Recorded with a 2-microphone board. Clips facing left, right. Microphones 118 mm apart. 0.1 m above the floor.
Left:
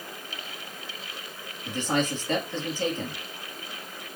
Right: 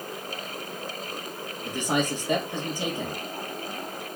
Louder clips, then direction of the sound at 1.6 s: Even; 15° right (ahead or behind).